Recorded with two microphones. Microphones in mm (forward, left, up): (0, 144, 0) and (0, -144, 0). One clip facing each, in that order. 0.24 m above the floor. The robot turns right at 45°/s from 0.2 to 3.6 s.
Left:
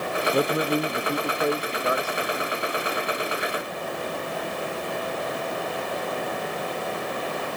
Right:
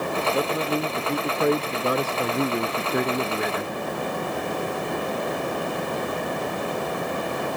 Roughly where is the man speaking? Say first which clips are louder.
Left 4 dB; behind left.